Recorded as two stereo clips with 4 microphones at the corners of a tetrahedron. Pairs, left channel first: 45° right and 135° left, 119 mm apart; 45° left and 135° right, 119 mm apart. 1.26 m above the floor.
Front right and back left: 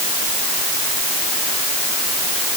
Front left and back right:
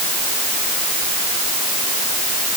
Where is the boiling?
I don't hear boiling.